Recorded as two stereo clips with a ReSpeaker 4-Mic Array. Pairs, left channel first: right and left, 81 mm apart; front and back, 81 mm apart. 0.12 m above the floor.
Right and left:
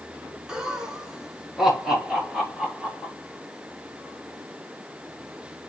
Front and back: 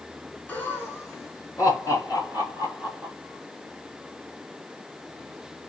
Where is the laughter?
25° left, 1.3 m; by 3.1 s straight ahead, 2.5 m.